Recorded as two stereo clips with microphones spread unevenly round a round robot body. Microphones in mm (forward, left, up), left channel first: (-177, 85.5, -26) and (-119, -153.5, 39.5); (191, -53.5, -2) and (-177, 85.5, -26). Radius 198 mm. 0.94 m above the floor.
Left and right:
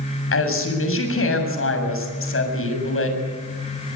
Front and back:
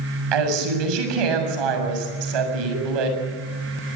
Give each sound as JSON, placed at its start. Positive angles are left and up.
{"t": 0.3, "sound": "a woman speaking", "azimuth_deg": 135, "distance_m": 7.0}